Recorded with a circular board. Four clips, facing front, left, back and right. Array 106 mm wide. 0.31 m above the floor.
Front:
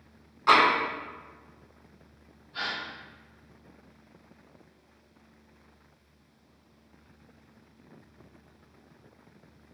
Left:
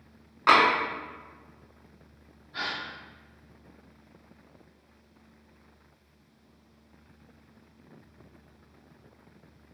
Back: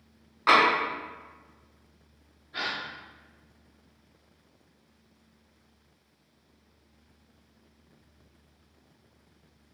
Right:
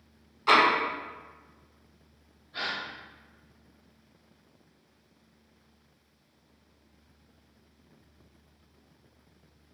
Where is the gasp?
175° left, 1.3 m.